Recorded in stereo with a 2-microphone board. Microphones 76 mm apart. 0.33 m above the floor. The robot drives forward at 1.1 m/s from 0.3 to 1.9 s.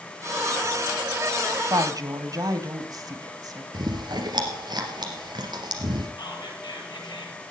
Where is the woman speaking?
55° right (ahead or behind), 1.7 m.